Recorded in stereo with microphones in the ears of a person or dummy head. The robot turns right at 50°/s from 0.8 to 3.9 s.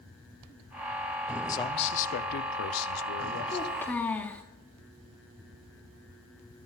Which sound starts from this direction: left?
A child speaking, at 3.5 s.